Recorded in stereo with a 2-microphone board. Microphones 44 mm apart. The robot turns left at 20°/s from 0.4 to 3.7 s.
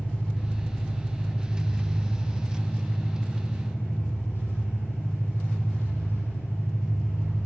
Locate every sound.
0.0 s an engine running: 155° left, 7.5 m; by 7.5 s 90° left, 7.5 m